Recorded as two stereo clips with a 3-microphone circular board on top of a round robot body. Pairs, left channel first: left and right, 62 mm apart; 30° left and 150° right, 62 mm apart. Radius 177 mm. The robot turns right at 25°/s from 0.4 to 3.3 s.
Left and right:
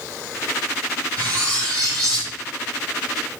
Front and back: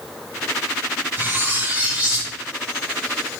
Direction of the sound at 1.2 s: 100° right.